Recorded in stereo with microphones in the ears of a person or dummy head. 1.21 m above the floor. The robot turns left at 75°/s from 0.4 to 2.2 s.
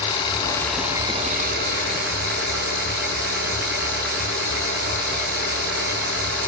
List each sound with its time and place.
0.0 s an engine running: 25° left, 3.5 m; by 6.5 s 110° right, 3.5 m